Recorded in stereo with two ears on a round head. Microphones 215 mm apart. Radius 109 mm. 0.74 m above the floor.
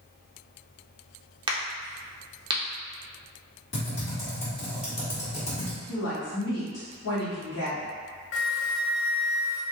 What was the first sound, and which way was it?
A crack, 20° right (ahead or behind).